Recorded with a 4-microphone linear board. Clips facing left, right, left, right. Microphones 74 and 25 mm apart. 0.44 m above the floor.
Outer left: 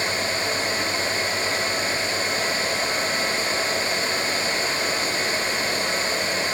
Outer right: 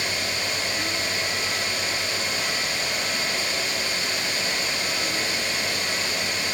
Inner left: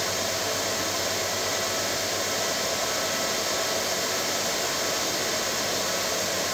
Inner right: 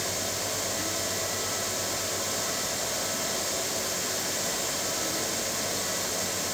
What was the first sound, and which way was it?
Only background noise.